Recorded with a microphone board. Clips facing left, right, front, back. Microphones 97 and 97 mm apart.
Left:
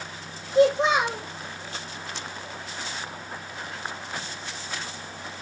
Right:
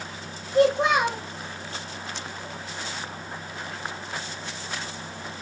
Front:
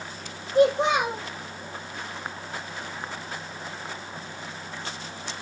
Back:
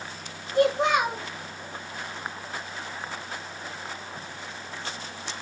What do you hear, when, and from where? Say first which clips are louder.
0.6 s a child speaking: even, front 2 dB; 65° right, 1.6 m